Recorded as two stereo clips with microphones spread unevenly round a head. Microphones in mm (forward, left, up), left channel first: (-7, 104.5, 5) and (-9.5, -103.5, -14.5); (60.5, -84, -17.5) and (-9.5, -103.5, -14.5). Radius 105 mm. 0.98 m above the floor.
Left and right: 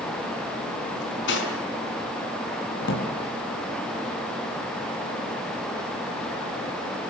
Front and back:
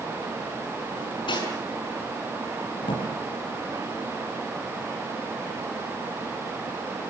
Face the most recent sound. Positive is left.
turn(degrees=55)